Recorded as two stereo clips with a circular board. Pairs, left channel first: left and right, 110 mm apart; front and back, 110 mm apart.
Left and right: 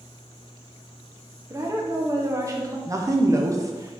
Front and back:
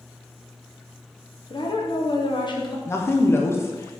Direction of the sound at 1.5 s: 35° right.